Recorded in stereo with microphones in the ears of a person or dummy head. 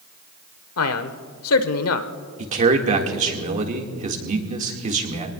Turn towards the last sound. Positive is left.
turn(degrees=-40)  # may be behind; listen again after turning